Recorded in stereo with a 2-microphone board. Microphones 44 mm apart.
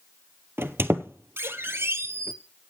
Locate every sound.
0.6 s a squeak: 65° right (ahead or behind), 0.9 m